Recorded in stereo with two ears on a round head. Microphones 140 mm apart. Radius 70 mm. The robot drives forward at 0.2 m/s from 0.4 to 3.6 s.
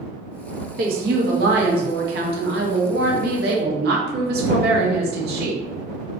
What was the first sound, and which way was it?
A woman speaking, 60° right (ahead or behind).